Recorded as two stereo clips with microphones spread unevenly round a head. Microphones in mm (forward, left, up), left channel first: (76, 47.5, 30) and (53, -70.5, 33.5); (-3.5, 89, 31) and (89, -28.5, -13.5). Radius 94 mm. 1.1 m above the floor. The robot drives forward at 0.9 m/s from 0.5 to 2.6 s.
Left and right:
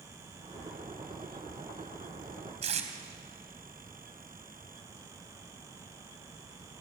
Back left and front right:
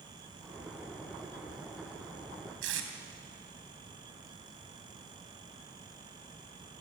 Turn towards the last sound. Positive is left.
turn(degrees=-70)